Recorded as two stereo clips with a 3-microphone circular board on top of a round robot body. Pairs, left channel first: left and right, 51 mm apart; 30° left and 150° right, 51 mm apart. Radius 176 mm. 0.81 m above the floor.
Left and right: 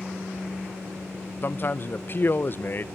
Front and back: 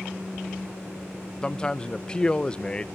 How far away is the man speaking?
About 1.0 m.